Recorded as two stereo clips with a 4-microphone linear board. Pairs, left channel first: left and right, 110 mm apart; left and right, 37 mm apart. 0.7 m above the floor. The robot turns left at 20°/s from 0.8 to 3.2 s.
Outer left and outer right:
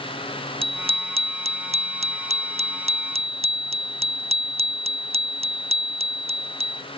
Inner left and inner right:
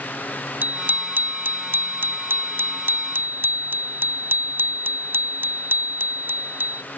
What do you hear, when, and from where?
0.6 s a bicycle bell: 60° right; by 6.8 s 110° right